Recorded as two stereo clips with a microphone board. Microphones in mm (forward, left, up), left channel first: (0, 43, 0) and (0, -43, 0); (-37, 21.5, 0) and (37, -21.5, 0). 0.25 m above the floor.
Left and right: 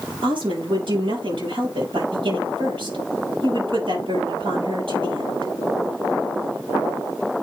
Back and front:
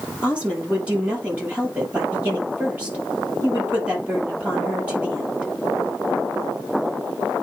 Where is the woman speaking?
105° right, 7 m.